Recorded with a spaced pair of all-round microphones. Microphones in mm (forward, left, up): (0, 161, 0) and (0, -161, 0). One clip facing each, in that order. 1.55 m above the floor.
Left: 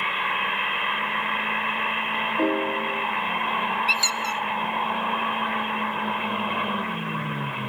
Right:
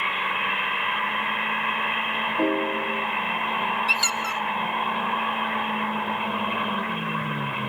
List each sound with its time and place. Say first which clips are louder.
2.4 s a piano: even; centre (ahead or behind), 0.6 m
3.9 s a squeak: even; 20° right (ahead or behind), 0.6 m